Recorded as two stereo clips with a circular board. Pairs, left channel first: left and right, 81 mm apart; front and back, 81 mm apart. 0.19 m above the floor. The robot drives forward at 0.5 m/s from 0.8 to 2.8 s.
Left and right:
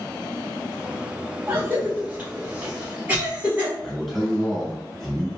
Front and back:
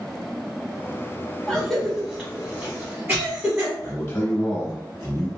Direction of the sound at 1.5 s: 70° right.